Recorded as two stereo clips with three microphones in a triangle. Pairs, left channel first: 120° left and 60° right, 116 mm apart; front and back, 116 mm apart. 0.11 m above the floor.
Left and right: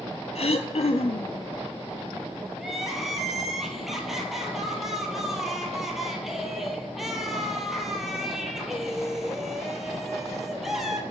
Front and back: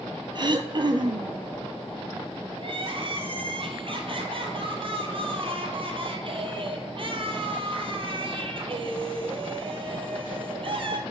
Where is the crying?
150° right, 1.1 m.